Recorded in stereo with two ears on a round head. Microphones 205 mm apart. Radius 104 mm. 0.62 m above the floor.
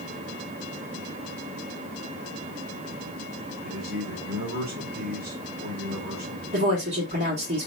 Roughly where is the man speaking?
Right.